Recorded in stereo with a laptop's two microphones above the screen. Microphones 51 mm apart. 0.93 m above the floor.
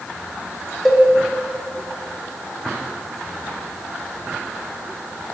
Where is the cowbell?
Centre (ahead or behind), 0.5 m.